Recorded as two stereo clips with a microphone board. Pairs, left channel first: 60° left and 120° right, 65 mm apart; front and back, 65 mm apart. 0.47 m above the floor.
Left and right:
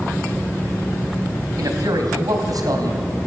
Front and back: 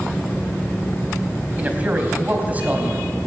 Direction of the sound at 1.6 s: 115° right.